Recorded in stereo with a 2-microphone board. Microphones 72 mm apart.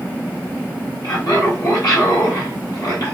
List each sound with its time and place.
1.0 s laughter: 65° left (ahead or behind), 2.5 m